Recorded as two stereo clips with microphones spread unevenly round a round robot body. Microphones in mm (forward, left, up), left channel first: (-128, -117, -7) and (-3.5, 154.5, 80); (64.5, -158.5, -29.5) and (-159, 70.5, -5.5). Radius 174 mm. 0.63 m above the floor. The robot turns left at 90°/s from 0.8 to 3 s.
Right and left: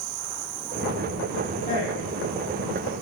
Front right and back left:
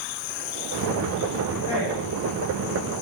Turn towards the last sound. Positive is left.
turn(degrees=-140)